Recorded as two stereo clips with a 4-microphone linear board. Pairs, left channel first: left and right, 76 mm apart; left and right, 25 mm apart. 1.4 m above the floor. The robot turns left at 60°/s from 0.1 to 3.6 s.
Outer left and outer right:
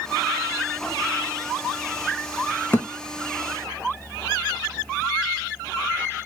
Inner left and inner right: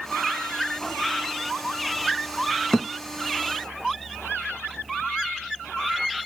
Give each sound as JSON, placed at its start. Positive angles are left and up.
{"t": 2.7, "sound": "a thud", "side_deg": 25, "distance_m": 0.7}